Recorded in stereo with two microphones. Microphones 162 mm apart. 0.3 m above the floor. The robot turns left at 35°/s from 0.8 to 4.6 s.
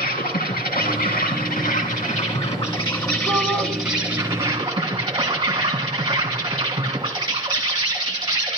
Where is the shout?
10° left (ahead or behind), 1.3 m; by 3.7 s 15° left (ahead or behind), 1.3 m.